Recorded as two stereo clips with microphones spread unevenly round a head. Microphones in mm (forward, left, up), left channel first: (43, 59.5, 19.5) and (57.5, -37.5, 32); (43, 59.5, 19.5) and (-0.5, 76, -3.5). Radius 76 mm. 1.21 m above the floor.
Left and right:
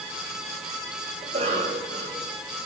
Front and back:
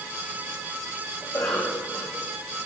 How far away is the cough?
About 5.5 m.